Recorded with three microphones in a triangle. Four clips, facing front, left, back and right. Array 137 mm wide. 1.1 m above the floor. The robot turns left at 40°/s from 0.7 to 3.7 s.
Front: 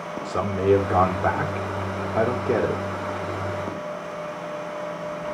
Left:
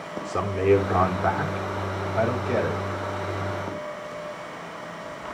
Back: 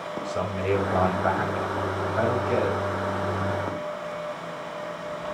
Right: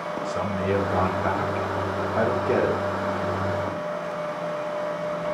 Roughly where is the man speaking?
Ahead left.